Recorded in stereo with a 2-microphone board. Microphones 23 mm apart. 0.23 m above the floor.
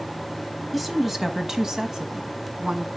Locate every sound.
0.7 s a woman speaking: centre (ahead or behind), 1.1 m; by 2.9 s 35° right (ahead or behind), 1.9 m